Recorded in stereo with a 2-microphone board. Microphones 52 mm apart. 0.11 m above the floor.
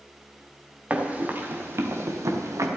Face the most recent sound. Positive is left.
turn(degrees=-85)